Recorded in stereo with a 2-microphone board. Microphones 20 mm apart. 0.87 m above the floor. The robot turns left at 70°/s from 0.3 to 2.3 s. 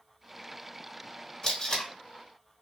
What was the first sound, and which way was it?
Tape being pulled, 35° left (ahead or behind).